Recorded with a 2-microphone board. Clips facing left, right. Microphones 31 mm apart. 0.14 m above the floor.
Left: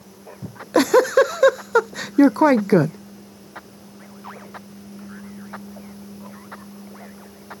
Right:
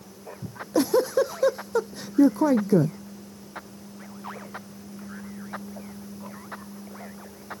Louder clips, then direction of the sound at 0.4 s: Left 6 dB; 70° left (ahead or behind).